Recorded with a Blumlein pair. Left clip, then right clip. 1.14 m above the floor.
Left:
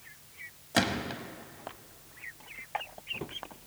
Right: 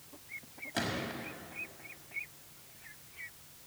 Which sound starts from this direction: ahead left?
A gunshot, at 0.7 s.